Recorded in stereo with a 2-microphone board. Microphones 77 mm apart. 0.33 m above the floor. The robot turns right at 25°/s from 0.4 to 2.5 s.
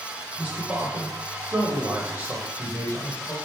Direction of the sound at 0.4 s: 20° right (ahead or behind).